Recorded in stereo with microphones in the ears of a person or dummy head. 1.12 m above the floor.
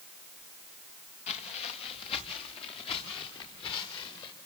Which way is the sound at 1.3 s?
35° left (ahead or behind).